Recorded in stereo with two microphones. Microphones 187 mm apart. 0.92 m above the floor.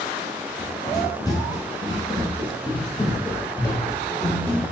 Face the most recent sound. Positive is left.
turn(degrees=10)  # may be behind; listen again after turning